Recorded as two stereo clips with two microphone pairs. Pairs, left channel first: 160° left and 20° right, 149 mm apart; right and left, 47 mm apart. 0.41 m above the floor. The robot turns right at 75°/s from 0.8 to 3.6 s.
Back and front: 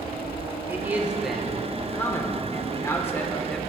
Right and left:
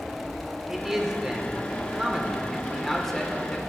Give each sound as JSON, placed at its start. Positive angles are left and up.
{"t": 0.7, "sound": "a man speaking", "azimuth_deg": 30, "distance_m": 1.0}